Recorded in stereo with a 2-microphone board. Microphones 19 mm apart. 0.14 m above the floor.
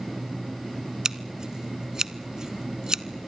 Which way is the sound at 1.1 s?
35° right (ahead or behind).